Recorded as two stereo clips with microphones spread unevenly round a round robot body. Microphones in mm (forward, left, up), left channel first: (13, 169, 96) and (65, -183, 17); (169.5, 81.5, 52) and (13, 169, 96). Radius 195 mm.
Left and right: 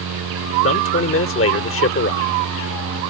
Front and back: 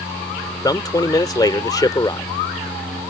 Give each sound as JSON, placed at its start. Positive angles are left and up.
{"t": 0.6, "sound": "a man speaking", "azimuth_deg": 40}